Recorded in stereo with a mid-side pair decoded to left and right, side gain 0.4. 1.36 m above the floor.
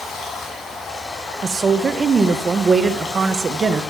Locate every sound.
0.0 s running water: 45° left, 5.5 m
1.4 s a woman speaking: 50° right, 1.2 m